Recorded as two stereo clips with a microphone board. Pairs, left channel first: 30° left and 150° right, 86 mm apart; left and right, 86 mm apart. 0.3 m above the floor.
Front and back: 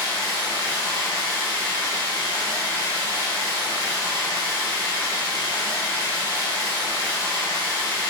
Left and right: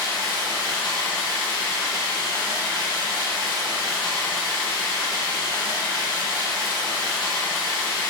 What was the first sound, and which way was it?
Running water, 75° left.